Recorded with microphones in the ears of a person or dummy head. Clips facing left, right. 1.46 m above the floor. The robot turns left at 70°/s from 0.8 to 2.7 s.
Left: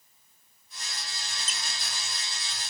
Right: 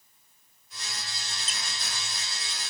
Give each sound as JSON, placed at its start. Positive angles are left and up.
{"t": 1.5, "sound": "a squeak", "side_deg": 30, "distance_m": 0.9}